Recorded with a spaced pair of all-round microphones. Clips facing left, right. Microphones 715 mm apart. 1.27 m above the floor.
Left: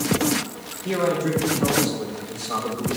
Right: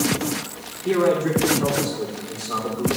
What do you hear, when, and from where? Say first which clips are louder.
0.8 s a man speaking: right 4 dB; 15° left (ahead or behind), 3.5 m; by 2.9 s 35° left (ahead or behind), 4 m